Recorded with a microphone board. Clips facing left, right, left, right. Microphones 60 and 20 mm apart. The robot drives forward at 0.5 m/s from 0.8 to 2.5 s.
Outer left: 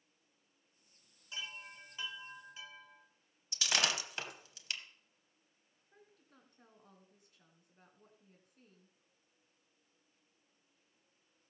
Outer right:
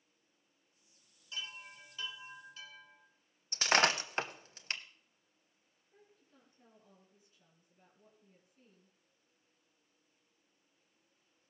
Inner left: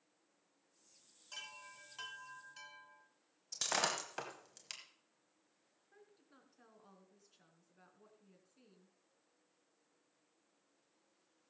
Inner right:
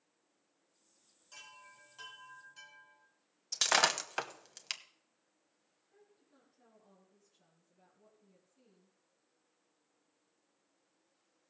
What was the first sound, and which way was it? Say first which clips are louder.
A chime: even, inner left 4 dB; 25° left (ahead or behind).